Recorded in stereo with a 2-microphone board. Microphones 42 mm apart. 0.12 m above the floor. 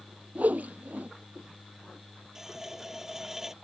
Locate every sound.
0.3 s a whoosh: 40° right (ahead or behind)
2.4 s a running tap: 10° right (ahead or behind)